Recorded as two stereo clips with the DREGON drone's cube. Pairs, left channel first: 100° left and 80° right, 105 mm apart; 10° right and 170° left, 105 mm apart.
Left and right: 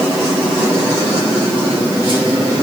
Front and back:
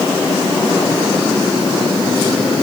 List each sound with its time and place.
Only background noise.